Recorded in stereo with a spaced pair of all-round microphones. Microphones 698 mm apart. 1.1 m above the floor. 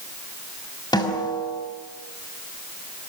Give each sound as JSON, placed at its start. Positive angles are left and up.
{"t": 0.9, "sound": "a snare drum", "side_deg": 5, "distance_m": 5.0}